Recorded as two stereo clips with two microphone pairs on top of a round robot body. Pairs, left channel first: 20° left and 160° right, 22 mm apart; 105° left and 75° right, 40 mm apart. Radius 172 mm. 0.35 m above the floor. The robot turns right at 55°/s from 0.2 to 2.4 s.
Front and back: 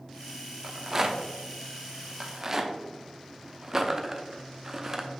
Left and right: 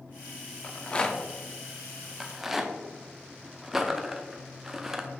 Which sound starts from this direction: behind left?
A rattle, at 0.6 s.